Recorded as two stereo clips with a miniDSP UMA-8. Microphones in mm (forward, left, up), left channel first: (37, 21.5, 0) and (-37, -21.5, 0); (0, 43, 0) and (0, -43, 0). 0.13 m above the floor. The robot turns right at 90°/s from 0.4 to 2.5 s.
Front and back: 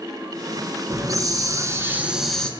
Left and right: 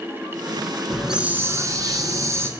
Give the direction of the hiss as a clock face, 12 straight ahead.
6 o'clock.